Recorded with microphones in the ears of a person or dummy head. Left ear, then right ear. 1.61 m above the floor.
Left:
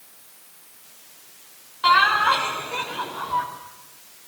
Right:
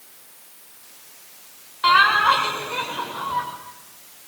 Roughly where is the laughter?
Centre.